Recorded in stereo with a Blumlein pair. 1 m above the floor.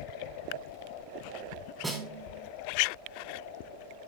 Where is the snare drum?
10° right, 2.5 m.